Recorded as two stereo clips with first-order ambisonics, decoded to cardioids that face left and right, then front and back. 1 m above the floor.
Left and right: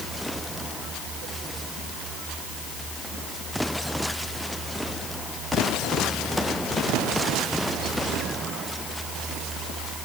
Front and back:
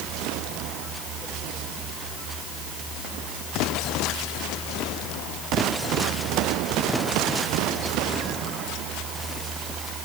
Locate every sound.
Only background noise.